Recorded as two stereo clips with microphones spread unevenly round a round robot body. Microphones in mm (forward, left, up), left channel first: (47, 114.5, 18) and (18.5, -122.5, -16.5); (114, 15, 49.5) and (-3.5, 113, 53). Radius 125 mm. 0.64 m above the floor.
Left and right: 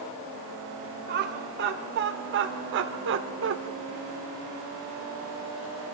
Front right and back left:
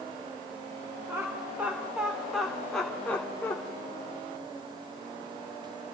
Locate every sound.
1.1 s laughter: 140° right, 3 m; by 3.6 s 115° right, 2 m